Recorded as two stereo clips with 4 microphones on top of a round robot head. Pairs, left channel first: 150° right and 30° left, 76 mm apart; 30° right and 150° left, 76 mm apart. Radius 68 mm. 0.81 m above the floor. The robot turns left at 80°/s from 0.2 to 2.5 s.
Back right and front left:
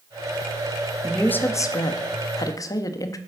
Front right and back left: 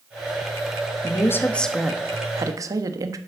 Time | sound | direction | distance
1.0 | a woman speaking | 65° right | 1.4 m